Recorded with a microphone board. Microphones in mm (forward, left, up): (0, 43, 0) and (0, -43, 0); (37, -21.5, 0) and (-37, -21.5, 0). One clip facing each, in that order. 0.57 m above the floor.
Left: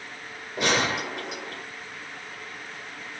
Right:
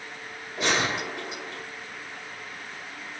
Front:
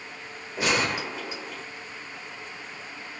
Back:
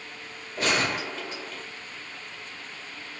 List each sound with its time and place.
0.6 s a gunshot: 80° left, 1.8 m